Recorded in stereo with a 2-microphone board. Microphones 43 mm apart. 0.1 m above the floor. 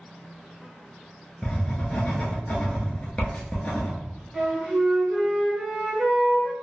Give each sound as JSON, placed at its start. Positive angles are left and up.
{"t": 1.4, "sound": "writing", "side_deg": 35, "distance_m": 0.8}
{"t": 4.3, "sound": "a flute", "side_deg": -5, "distance_m": 1.1}